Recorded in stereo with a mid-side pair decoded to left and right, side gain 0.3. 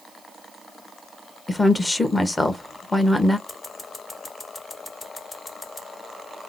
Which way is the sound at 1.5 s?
25° left.